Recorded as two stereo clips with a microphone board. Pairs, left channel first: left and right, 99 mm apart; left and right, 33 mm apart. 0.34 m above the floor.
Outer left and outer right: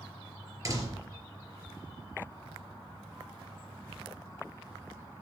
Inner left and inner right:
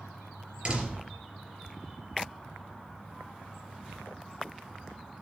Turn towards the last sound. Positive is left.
turn(degrees=-35)  # may be behind; listen again after turning